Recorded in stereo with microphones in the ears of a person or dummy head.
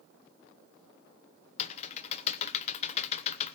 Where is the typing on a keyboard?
40° left (ahead or behind), 0.8 m.